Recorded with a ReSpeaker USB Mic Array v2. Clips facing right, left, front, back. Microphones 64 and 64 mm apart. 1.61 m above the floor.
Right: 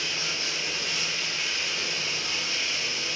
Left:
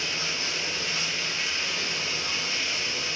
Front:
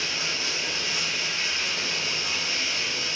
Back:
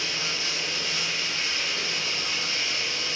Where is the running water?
55° left, 1.0 m.